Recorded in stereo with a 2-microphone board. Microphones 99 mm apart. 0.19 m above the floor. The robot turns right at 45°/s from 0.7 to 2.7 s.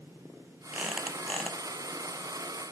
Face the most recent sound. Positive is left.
turn(degrees=70)